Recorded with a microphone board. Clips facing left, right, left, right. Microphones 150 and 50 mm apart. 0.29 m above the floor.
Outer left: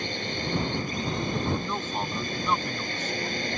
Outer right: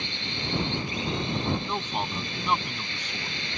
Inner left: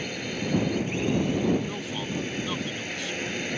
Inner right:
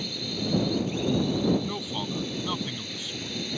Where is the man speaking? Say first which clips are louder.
Even, even; 15° right (ahead or behind).